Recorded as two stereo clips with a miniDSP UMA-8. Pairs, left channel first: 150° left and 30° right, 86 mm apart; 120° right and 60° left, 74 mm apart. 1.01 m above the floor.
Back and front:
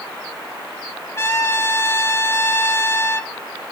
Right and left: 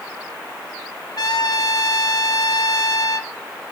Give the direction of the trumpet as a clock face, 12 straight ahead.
5 o'clock.